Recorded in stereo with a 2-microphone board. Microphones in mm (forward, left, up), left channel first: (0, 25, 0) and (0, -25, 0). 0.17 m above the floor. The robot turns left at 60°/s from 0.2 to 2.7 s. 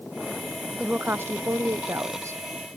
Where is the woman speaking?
25° right; by 2.4 s 125° right.